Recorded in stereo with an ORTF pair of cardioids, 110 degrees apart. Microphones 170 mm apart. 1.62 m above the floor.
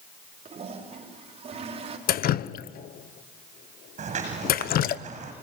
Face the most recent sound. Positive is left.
turn(degrees=-45)